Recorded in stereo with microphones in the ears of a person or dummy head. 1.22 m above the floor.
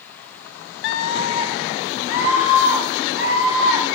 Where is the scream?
55° left (ahead or behind), 0.6 m; by 3.9 s 60° left (ahead or behind), 4.5 m.